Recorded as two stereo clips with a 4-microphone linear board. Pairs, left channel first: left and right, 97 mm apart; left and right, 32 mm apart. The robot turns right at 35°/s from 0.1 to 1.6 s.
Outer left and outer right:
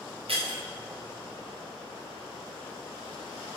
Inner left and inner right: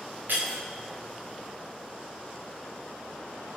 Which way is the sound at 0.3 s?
75° right (ahead or behind).